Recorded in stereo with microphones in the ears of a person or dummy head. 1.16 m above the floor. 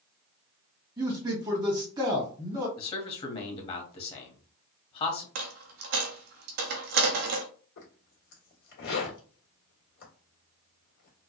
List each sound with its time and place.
1.0 s a man speaking: 25° right (ahead or behind), 1.9 m
2.8 s a man speaking: 35° left (ahead or behind), 1.7 m
5.3 s a dropped coin: 50° right (ahead or behind), 0.7 m
7.8 s a zipper: 70° left (ahead or behind), 1.6 m